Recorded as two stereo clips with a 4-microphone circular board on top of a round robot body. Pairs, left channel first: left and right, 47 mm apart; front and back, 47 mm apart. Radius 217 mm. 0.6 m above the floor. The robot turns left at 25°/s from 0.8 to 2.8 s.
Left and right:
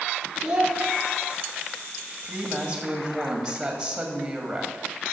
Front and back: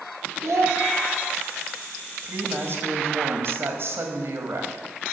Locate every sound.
0.4 s a child speaking: 165° right, 2 m
2.2 s a woman speaking: 160° right, 2 m; by 4.8 s 175° right, 2 m